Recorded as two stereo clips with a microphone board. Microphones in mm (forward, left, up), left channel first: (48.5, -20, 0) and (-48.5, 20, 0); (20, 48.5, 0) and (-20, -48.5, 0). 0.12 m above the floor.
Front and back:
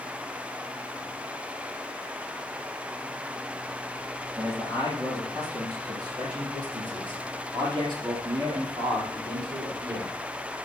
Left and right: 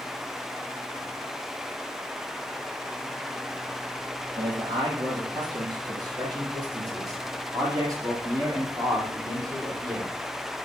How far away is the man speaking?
About 3.5 m.